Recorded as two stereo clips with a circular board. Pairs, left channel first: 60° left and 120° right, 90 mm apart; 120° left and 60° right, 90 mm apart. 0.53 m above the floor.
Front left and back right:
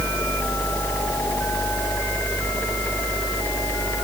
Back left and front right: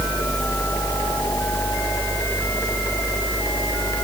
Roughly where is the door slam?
I don't hear a door slam.